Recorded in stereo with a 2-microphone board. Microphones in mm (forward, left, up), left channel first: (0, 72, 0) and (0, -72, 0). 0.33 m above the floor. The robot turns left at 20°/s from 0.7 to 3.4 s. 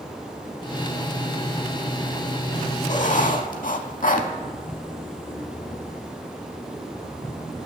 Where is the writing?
55° left (ahead or behind), 0.5 m; by 4.3 s 65° left (ahead or behind), 0.5 m.